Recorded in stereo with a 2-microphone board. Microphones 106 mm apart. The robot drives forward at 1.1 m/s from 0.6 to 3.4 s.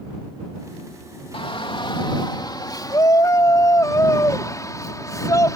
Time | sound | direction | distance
1.3 | a shout | 65° left (ahead or behind) | ?